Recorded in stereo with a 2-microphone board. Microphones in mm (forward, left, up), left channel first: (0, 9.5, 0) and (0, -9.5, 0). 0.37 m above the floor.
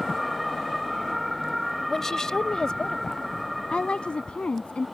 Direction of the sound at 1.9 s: 20° left (ahead or behind).